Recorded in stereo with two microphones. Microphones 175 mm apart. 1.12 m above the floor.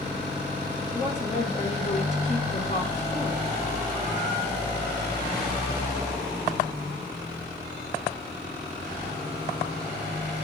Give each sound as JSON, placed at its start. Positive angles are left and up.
{"t": 0.9, "sound": "a woman speaking", "side_deg": 40, "distance_m": 3.0}